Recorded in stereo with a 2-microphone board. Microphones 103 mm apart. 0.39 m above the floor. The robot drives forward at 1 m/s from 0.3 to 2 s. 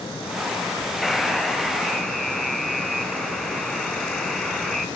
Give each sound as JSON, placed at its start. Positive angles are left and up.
{"t": 1.0, "sound": "a buzzer", "side_deg": 0, "distance_m": 0.8}